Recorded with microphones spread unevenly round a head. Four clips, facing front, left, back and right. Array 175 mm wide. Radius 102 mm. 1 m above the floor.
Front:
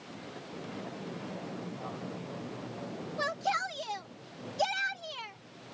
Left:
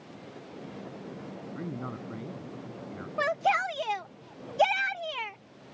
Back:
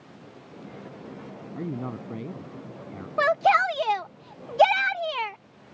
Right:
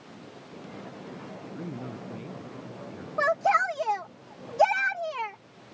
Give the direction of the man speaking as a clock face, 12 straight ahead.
7 o'clock.